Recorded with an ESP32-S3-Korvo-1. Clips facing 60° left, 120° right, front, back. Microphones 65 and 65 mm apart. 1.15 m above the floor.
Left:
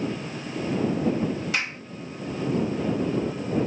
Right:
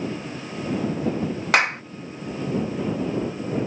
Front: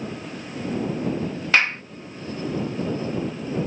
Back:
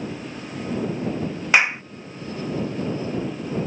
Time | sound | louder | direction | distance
1.5 | a clap | right 9 dB, back 2 dB | 105° right | ?